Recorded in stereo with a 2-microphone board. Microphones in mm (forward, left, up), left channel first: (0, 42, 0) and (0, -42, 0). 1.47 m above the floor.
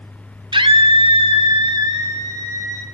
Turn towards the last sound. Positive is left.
turn(degrees=-35)  # may be behind; listen again after turning